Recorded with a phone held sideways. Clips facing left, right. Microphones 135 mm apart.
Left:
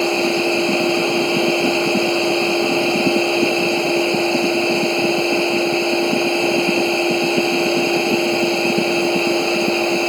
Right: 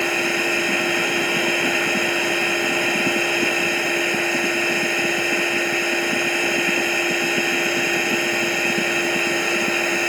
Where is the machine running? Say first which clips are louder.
Left 6 dB; 25° left (ahead or behind).